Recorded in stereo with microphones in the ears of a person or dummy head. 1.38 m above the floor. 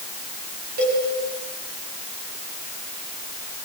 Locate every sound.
0.8 s a cowbell: 40° right (ahead or behind), 5 m